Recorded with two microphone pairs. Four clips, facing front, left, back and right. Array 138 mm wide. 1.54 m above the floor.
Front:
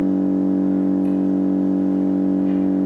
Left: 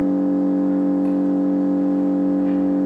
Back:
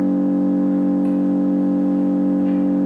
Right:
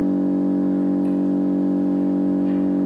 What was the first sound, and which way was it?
An engine running, 115° left.